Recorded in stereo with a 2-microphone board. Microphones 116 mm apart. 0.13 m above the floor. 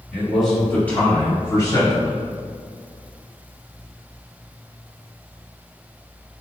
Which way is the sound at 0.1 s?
5° right (ahead or behind).